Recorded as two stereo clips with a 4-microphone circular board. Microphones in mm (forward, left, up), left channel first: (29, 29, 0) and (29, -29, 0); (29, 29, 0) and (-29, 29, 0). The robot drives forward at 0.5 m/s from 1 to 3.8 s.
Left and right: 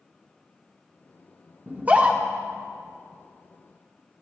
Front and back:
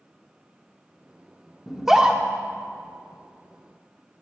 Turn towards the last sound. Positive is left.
turn(degrees=-160)